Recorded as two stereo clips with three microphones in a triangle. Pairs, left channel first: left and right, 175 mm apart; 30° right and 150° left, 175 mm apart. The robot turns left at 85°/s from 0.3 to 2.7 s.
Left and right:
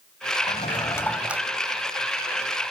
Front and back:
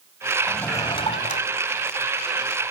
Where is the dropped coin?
I don't hear a dropped coin.